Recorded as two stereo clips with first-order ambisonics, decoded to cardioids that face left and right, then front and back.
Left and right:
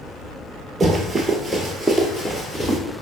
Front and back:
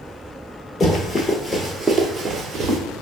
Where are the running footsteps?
20° right, 1.0 m; by 2.8 s 150° left, 1.1 m.